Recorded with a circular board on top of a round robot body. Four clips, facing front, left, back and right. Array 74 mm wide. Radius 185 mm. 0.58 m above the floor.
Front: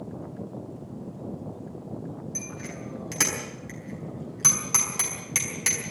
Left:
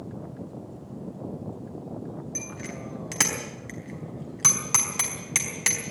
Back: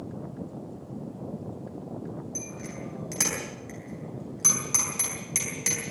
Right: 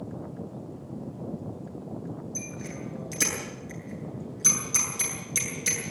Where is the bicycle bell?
75° left, 4 m.